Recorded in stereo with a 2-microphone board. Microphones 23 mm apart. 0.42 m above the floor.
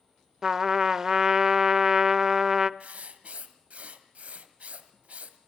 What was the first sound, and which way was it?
A trumpet, 20° right (ahead or behind).